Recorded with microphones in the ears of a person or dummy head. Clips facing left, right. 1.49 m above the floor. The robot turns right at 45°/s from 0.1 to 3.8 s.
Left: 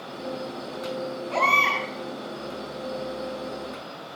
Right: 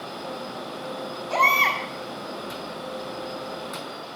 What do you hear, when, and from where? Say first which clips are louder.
1.3 s a baby crying: right 2 dB; 60° right (ahead or behind), 5.5 m; by 1.8 s 80° right, 5.5 m